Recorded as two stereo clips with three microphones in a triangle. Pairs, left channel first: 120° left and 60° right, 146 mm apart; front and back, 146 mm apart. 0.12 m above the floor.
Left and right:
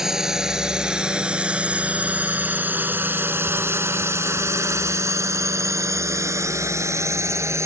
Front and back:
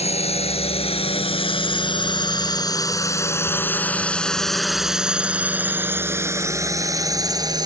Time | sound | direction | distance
0.0 | a drone | 25° left | ?